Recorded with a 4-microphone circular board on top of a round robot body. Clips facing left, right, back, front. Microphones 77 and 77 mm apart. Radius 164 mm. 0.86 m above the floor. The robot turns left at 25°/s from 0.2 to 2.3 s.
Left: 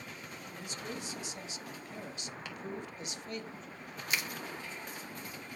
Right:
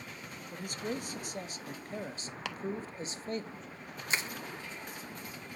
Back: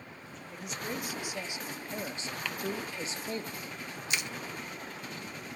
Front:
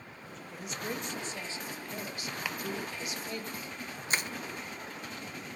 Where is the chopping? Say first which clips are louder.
Right 8 dB, front 1 dB; 80° right, 0.8 m.